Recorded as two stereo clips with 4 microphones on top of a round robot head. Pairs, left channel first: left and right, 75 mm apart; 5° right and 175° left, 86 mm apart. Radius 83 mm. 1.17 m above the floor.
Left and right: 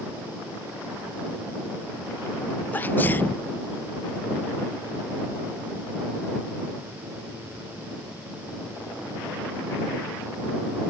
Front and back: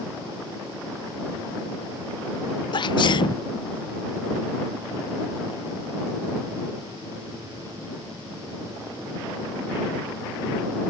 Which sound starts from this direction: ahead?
A sneeze, at 2.7 s.